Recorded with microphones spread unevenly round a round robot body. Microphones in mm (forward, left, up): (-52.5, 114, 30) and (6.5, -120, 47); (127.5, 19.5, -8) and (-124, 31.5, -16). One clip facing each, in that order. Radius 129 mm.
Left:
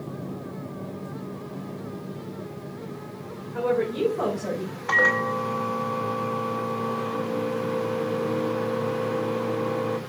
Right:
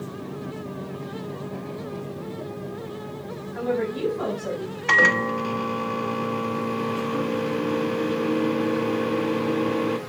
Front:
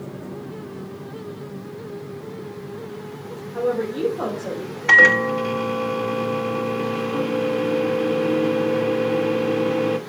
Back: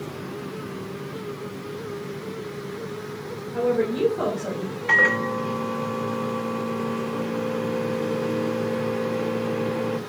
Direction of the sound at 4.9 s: 25° right.